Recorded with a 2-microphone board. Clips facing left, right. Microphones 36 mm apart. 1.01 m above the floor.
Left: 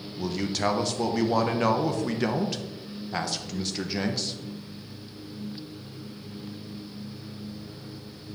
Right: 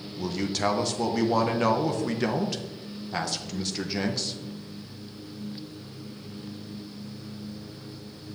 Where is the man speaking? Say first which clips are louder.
Even; 5° left (ahead or behind), 0.8 m.